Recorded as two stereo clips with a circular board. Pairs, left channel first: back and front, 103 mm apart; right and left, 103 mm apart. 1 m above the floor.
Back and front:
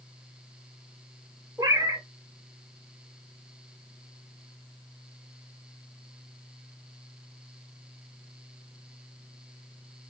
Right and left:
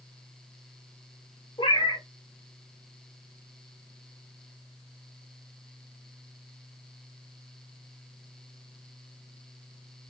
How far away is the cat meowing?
About 1.2 m.